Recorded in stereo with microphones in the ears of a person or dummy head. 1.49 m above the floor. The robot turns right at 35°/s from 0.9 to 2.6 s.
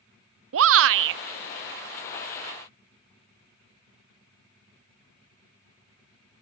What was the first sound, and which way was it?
A shout, 80° right.